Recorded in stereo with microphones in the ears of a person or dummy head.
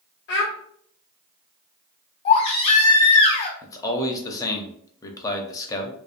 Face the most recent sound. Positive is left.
turn(degrees=10)  # may be behind; listen again after turning